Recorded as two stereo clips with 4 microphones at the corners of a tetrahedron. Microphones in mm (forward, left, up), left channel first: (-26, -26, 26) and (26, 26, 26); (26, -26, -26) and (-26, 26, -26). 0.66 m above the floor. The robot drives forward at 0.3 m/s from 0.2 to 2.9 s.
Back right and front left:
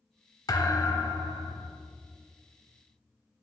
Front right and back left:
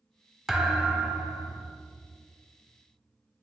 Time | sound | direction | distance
0.5 | a thud | 140° right | 0.7 m